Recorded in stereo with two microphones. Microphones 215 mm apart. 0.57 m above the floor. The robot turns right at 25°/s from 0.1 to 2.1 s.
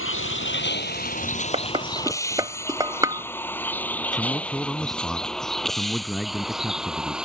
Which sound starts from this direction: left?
A vehicle, at 0.0 s.